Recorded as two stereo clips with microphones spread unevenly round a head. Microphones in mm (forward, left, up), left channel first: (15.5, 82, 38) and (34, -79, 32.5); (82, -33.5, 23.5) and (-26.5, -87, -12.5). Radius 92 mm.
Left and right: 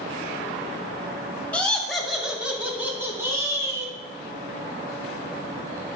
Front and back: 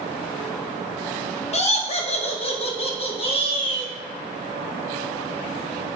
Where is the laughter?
15° left, 1.7 m; by 3.9 s 10° right, 3 m.